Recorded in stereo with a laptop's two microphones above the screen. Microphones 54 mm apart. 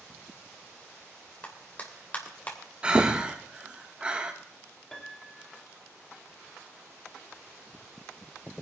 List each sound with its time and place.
1.4 s a clap: 30° left (ahead or behind), 3 m
2.8 s breathing: 20° right (ahead or behind), 1.1 m
4.9 s a piano: 5° left (ahead or behind), 2.0 m